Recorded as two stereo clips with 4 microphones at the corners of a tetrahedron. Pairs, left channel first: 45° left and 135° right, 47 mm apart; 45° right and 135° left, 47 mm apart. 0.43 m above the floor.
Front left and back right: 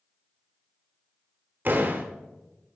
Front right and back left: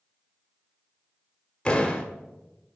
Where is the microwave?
I don't hear a microwave.